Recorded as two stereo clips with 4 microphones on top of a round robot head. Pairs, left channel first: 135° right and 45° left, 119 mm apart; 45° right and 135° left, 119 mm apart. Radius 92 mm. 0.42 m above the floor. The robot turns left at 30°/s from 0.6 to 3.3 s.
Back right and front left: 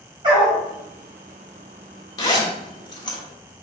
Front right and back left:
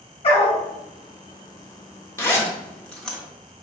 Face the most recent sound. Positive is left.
turn(degrees=-130)